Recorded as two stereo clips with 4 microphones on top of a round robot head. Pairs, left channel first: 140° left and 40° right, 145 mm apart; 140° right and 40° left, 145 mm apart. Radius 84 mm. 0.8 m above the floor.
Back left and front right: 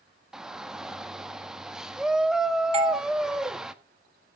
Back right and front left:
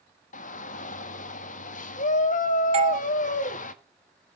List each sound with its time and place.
0.3 s a shout: 125° right, 1.4 m
2.7 s a doorbell: straight ahead, 1.5 m